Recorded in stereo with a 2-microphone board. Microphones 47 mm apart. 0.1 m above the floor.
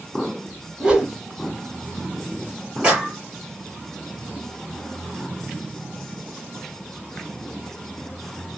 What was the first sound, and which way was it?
A whoosh, 20° right (ahead or behind).